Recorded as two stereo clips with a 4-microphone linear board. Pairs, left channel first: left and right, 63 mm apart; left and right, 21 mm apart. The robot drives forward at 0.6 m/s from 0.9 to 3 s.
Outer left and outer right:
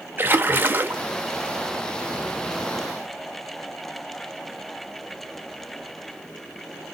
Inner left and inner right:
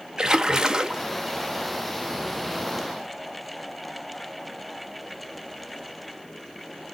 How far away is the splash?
About 0.6 m.